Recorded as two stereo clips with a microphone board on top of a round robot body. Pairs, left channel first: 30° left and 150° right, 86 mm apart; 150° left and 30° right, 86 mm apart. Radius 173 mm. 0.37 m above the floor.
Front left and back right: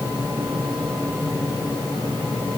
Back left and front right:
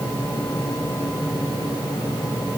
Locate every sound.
Only background noise.